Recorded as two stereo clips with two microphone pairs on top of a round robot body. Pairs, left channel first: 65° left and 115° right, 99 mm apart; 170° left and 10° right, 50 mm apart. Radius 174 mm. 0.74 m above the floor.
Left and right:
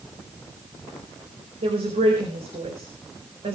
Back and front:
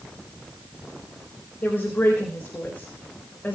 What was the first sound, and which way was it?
A woman speaking, 125° right.